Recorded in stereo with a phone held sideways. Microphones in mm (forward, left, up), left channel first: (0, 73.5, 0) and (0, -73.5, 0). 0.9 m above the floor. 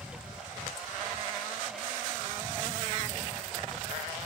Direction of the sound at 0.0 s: 5° right (ahead or behind).